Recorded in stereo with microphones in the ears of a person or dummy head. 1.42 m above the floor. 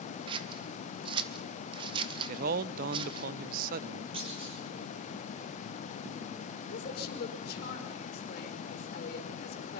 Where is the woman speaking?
45° left (ahead or behind), 4.5 m.